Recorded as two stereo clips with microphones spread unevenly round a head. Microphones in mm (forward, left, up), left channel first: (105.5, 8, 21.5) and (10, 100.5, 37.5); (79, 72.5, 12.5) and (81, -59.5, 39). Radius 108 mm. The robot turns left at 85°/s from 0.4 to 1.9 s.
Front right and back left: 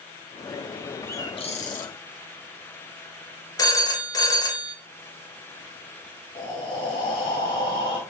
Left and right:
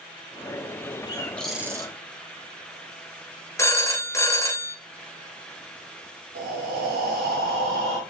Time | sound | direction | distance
1.1 | a bird | 35° left | 1.8 m
3.6 | a phone ringing | 20° left | 1.5 m
6.3 | breathing | 110° right | 2 m